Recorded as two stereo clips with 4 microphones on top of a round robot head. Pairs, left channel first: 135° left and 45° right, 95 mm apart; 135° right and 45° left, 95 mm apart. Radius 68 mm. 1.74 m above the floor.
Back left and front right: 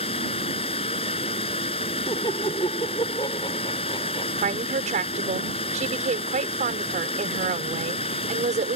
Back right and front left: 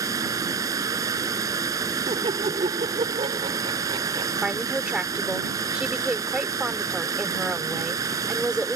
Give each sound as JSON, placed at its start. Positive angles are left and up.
{"t": 0.0, "sound": "running water", "azimuth_deg": 100}
{"t": 2.1, "sound": "laughter", "azimuth_deg": 80}
{"t": 4.4, "sound": "a woman speaking", "azimuth_deg": -40}